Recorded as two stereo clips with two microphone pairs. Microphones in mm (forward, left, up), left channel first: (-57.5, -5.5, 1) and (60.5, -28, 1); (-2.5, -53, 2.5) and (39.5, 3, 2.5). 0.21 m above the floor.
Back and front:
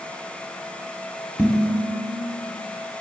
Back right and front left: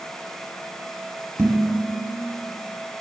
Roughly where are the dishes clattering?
Ahead left.